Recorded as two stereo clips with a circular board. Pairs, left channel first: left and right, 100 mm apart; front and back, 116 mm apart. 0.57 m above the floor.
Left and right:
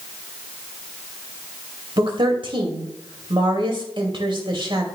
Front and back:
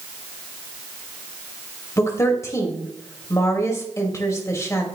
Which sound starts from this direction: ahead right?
A woman speaking, at 2.0 s.